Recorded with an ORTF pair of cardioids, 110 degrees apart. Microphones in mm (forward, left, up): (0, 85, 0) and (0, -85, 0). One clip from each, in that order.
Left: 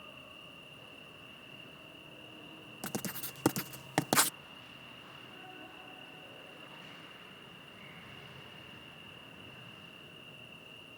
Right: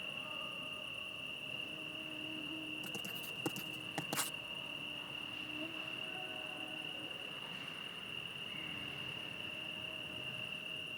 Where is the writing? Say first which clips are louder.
Left 1 dB; 65° left.